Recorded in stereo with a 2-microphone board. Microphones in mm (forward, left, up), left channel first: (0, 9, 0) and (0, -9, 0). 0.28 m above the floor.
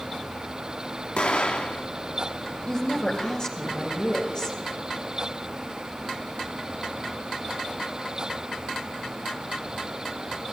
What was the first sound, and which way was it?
An explosion, 70° left (ahead or behind).